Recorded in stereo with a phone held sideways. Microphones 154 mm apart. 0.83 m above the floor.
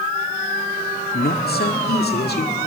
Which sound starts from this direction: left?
A man speaking, at 1.1 s.